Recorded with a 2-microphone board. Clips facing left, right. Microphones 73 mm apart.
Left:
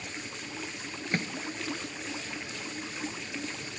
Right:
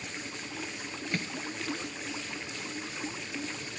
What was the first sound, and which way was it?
A microwave, 35° left (ahead or behind).